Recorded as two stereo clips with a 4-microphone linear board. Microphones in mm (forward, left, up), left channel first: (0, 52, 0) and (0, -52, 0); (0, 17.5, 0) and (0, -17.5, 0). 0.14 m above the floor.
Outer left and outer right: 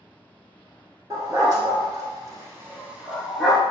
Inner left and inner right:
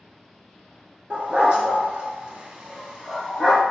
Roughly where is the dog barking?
Right.